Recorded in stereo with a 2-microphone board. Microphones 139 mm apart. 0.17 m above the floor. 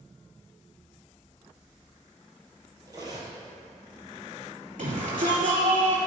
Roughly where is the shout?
Right.